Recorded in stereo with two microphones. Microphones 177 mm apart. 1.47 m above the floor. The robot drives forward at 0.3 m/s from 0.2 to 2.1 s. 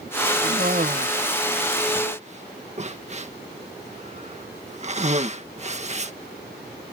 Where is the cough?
55° right (ahead or behind); by 6.1 s 40° right (ahead or behind).